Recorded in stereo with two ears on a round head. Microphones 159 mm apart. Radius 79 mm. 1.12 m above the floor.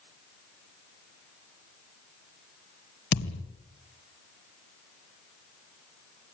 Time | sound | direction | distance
3.1 | a thud | 65° left (ahead or behind) | 2 m